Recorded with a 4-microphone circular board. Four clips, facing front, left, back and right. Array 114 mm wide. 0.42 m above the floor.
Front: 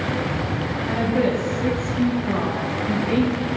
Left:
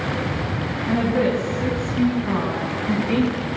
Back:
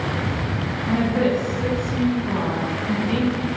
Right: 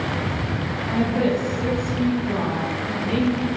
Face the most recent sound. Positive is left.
turn(degrees=90)